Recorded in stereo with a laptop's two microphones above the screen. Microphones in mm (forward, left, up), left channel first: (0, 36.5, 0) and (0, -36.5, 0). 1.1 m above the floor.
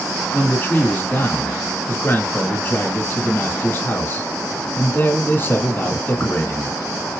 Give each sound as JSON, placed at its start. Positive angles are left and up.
{"t": 0.3, "sound": "a man speaking", "side_deg": 35, "distance_m": 1.6}